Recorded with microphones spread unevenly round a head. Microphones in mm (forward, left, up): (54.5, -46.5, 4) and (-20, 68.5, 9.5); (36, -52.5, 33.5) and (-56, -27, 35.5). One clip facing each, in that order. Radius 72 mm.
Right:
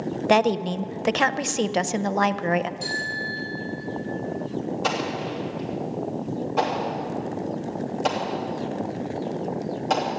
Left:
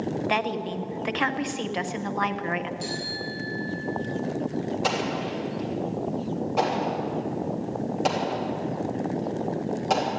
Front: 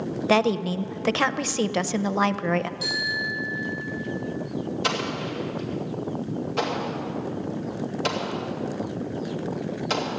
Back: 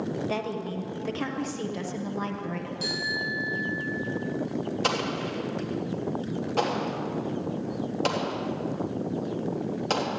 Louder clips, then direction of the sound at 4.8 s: Even, front 1 dB; 150° right.